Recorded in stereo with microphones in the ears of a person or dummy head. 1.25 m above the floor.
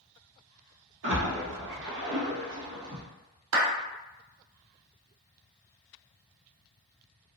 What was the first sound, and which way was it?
A splash, 70° right (ahead or behind).